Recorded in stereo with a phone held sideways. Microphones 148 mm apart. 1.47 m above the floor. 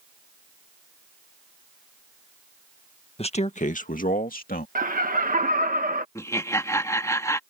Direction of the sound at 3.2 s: 45° left (ahead or behind).